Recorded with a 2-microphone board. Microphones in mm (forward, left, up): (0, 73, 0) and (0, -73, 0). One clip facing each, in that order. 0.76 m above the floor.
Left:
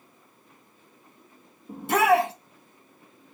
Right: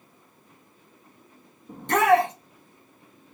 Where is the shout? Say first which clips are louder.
Right 1 dB; 10° left (ahead or behind), 0.7 m.